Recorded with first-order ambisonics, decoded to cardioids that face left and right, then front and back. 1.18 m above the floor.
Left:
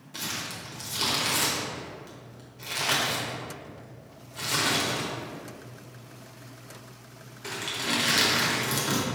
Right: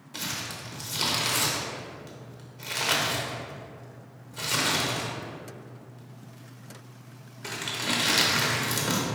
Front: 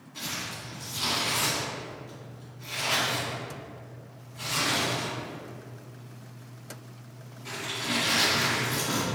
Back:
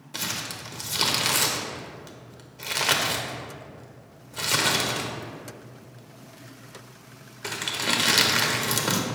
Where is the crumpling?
175° right, 0.7 m.